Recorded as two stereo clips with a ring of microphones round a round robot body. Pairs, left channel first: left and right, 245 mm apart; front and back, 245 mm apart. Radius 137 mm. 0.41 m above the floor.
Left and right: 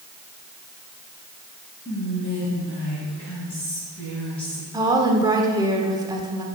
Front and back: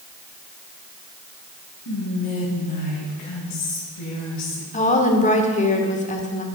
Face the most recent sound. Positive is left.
turn(degrees=-30)